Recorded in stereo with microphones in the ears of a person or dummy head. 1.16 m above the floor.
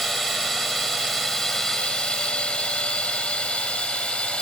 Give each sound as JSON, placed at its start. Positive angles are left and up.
{"t": 0.0, "sound": "a drone", "side_deg": 5}